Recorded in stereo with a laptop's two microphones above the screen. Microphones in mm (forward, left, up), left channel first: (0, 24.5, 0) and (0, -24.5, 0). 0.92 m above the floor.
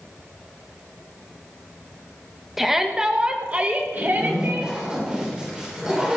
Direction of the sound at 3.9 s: 15° right (ahead or behind).